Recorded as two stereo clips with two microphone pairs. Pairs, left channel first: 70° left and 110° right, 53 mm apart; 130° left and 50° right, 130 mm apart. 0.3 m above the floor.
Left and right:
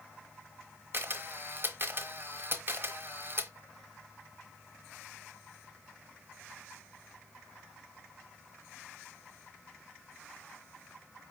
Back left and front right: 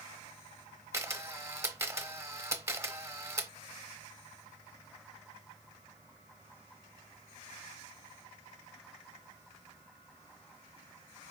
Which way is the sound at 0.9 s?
105° right.